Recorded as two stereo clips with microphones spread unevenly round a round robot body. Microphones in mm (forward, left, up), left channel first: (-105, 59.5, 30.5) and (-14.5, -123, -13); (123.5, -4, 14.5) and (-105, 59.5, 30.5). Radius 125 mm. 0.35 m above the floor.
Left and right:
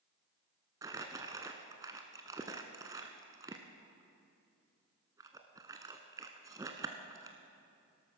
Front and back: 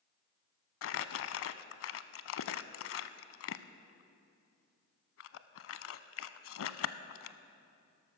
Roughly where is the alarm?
I don't hear an alarm.